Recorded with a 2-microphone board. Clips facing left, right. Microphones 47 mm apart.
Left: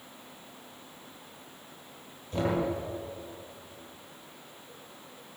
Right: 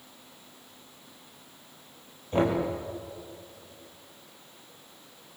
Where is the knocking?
35° right (ahead or behind), 6.5 m.